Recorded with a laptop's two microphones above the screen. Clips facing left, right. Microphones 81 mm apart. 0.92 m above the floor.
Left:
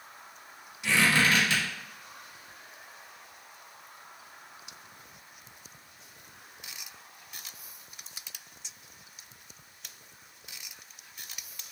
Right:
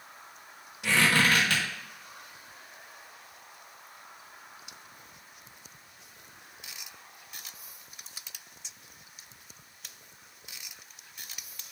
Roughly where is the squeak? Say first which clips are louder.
Even; right.